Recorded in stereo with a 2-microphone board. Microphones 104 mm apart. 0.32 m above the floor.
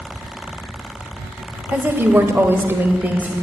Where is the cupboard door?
I don't hear a cupboard door.